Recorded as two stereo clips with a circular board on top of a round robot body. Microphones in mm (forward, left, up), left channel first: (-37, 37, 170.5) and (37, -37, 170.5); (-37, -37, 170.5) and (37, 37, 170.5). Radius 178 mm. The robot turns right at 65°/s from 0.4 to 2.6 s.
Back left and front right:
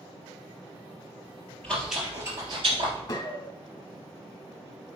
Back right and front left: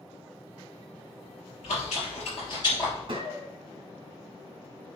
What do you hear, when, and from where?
1.6 s chewing: 150° right, 3 m; by 3.0 s 85° right, 3 m
3.1 s a gunshot: 85° left, 1.9 m